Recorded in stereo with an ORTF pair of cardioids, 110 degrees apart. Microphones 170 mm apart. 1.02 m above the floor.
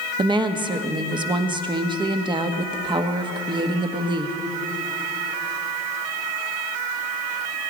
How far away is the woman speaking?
About 1.2 m.